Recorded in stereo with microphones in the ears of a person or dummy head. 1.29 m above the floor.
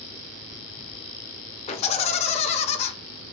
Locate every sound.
1.7 s laughter: 35° left (ahead or behind), 0.7 m